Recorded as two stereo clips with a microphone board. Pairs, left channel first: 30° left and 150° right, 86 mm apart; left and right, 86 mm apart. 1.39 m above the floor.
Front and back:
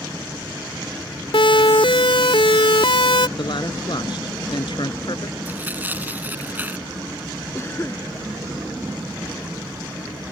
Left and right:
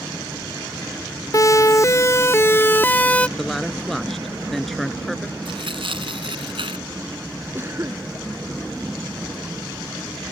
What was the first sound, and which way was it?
A siren, 40° left.